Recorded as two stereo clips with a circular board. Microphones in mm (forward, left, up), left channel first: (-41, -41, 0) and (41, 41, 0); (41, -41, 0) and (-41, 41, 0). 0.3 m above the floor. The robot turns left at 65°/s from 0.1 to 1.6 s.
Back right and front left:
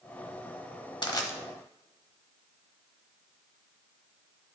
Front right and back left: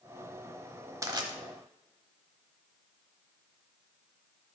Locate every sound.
1.0 s crushing: 170° right, 0.9 m; by 1.3 s 170° left, 0.9 m